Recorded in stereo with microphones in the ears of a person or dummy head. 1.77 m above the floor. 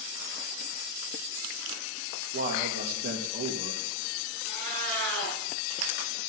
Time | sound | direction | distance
2.3 | a man speaking | 50° right (ahead or behind) | 2.5 m
4.5 | a cat meowing | 75° right (ahead or behind) | 6 m